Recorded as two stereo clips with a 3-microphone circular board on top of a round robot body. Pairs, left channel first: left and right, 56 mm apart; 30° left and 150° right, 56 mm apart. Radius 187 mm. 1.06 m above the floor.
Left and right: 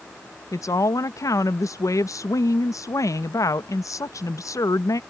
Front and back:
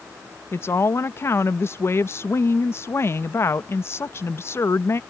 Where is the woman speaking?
70° left.